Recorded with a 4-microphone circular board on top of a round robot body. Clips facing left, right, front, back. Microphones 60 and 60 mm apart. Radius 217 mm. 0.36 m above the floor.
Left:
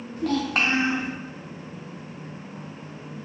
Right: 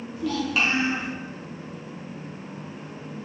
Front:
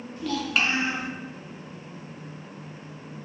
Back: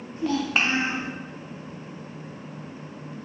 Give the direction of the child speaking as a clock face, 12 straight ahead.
8 o'clock.